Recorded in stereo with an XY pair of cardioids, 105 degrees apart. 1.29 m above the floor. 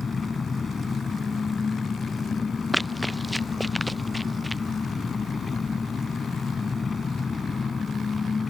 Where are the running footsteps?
5° right.